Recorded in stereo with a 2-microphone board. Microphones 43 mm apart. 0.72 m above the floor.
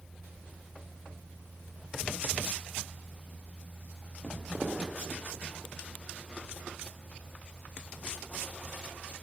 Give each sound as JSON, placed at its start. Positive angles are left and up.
{"t": 4.2, "sound": "footsteps", "side_deg": -15, "distance_m": 1.1}